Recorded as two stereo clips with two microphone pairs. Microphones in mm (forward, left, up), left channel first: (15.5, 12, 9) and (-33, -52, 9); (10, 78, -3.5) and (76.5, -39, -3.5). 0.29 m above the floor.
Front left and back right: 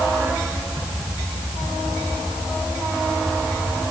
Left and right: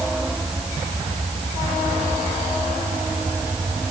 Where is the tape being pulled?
I don't hear tape being pulled.